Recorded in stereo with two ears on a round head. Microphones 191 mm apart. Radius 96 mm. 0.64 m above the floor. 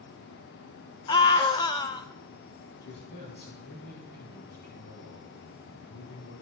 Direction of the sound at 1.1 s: 20° left (ahead or behind).